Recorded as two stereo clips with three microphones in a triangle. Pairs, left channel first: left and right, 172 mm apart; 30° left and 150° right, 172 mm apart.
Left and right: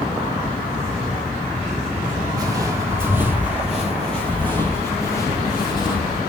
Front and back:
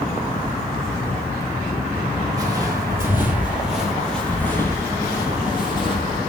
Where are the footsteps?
125° right, 1.8 m; by 6.2 s 55° left, 2 m.